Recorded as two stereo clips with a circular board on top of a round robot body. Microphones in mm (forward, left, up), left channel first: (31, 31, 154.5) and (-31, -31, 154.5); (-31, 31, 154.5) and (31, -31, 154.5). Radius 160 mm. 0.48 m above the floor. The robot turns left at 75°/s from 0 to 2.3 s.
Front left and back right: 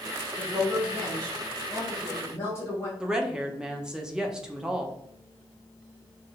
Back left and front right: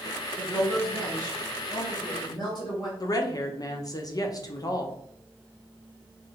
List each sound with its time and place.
0.4 s a woman speaking: 115° right, 2 m; by 2.9 s 100° left, 2 m
3.0 s a woman speaking: 145° left, 1.1 m